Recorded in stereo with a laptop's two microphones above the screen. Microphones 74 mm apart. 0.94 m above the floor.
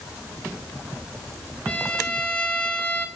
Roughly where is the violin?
Centre.